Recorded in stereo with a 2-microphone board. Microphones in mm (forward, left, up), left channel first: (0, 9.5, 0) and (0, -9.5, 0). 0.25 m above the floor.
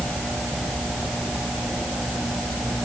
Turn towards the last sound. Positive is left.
No sound to turn to.